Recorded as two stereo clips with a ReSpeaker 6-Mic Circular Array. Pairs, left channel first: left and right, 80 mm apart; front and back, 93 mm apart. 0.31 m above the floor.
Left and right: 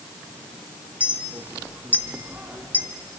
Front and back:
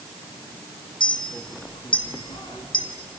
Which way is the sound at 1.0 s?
20° right.